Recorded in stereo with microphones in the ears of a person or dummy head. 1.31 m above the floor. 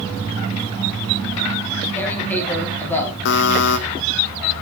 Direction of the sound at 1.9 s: 10° left (ahead or behind).